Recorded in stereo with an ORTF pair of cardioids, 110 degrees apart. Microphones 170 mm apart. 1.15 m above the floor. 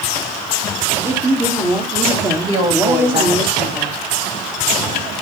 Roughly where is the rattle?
No rattle in this recording.